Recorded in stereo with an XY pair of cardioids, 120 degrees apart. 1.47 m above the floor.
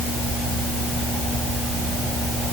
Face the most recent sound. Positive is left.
No sound to turn to.